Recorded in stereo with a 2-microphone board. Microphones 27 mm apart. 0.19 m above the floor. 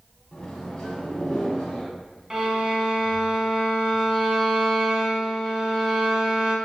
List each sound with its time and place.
0.3 s a microwave: 25° left (ahead or behind), 1.1 m
2.3 s a violin: 20° right (ahead or behind), 0.8 m